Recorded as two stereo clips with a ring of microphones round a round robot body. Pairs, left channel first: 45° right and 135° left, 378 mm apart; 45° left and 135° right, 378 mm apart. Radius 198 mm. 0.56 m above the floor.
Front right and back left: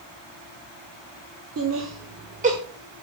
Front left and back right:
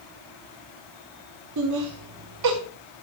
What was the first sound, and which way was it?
Laughter, 175° right.